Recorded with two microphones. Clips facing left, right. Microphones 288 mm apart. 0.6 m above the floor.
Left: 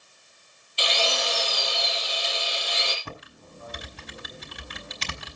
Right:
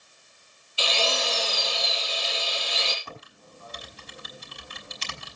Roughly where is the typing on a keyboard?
Left.